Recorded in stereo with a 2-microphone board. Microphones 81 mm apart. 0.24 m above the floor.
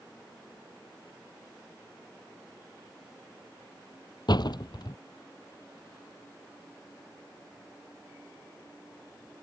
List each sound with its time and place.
4.3 s a door slam: 60° left (ahead or behind)